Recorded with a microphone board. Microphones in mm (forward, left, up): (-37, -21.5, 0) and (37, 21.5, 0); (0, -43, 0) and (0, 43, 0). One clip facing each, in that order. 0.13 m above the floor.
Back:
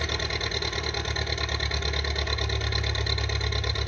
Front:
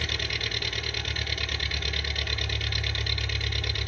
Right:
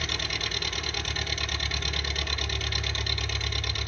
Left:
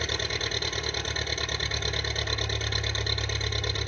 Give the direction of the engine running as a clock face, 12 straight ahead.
7 o'clock.